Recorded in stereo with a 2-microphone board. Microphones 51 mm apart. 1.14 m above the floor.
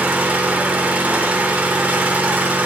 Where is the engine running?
30° right (ahead or behind), 0.8 m.